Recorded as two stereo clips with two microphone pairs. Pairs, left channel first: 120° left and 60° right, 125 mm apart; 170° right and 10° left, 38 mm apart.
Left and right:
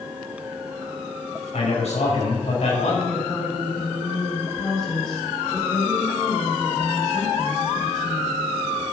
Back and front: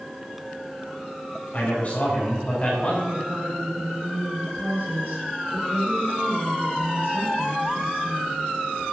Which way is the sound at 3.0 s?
35° left.